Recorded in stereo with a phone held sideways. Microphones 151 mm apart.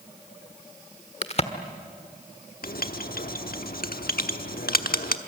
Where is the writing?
80° left, 1.0 m.